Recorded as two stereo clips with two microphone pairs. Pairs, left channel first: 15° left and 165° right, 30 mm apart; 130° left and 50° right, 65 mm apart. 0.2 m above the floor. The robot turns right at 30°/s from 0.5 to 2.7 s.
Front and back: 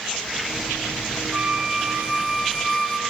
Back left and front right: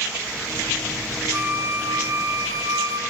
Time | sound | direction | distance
1.3 | a flute | 110° right | 2.5 m